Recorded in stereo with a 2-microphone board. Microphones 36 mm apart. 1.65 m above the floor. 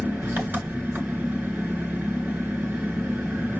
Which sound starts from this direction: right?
An engine running, at 0.0 s.